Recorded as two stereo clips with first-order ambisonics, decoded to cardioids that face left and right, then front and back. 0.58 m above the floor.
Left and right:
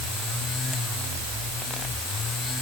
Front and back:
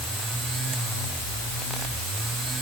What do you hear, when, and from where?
Only background noise.